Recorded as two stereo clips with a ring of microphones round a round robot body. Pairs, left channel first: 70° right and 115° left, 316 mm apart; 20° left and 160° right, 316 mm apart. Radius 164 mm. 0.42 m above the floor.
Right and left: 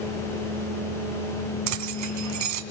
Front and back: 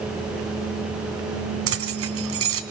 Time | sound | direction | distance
1.7 | keys jangling | 150° left | 2.5 m